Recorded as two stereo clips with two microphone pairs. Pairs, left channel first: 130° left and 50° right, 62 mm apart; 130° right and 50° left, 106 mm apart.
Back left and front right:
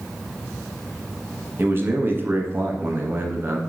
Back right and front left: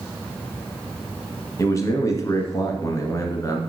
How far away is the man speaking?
About 1.5 m.